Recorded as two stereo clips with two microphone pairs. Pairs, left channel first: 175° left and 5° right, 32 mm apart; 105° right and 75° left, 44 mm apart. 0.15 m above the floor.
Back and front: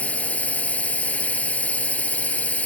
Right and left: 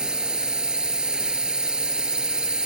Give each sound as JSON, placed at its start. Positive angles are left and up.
{"t": 0.0, "sound": "a drone", "azimuth_deg": 145}